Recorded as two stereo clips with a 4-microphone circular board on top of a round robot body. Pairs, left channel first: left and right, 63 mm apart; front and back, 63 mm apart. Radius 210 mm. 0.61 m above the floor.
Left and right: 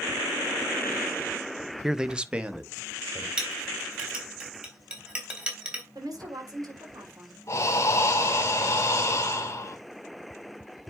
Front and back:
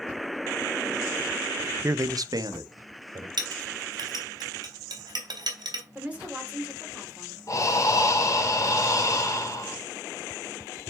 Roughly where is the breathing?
Ahead left.